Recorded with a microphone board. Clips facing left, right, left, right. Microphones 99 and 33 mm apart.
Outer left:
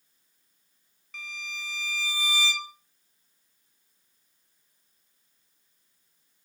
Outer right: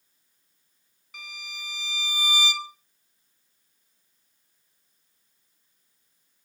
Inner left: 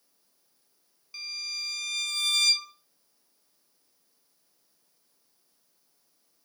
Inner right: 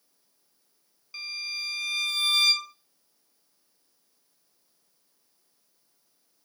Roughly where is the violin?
Centre.